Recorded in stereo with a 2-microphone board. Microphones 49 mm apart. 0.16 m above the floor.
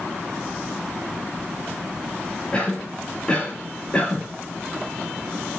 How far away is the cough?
About 3.5 m.